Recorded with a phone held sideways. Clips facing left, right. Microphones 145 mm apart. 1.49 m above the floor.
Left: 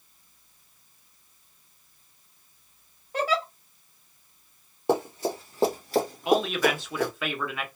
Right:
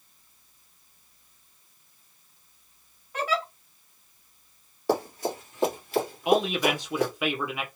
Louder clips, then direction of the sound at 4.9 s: Left 1 dB; 20° left (ahead or behind).